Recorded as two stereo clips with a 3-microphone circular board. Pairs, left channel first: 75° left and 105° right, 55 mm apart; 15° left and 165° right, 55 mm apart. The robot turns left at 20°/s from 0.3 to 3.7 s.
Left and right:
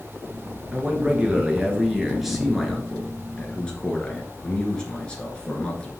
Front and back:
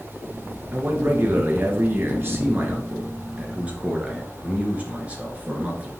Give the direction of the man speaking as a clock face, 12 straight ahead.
5 o'clock.